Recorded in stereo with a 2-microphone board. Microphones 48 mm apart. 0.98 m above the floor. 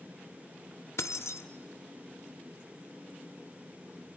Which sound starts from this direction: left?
Keys jangling, at 1.0 s.